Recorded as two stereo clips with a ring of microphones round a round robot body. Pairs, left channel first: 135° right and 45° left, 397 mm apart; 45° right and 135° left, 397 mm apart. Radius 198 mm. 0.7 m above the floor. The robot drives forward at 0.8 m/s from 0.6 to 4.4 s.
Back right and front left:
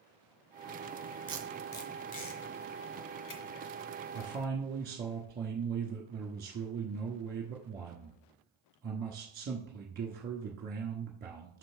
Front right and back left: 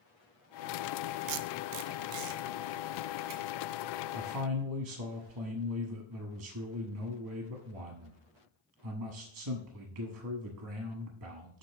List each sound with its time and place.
1.3 s tape being pulled: 125° left, 0.6 m; by 3.4 s 165° left, 2 m
4.1 s a man speaking: 95° left, 0.9 m; by 11.6 s 110° left, 1.0 m